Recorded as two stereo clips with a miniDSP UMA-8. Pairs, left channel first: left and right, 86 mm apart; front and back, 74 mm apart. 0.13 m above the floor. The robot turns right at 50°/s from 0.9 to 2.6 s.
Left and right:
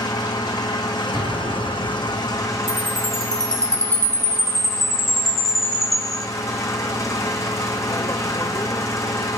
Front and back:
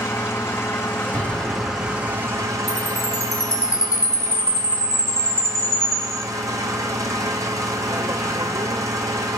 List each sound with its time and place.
0.0 s an engine running: 55° left, 2.5 m; by 9.4 s 140° left, 2.5 m
1.1 s an explosion: 150° right, 3.5 m; by 2.6 s 75° right, 3.5 m
2.7 s a chime: 40° right, 2.5 m